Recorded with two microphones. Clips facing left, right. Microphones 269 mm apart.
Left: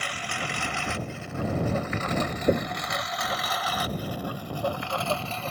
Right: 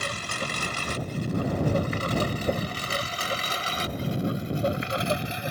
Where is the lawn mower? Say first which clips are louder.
Right 2 dB; 45° right (ahead or behind); by 5.5 s 15° right (ahead or behind).